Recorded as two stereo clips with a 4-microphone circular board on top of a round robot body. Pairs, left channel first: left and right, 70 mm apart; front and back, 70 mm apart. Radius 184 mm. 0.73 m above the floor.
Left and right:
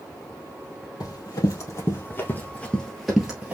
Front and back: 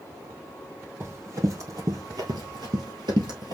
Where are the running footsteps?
130° left, 2 m; by 3.5 s 160° right, 1.3 m.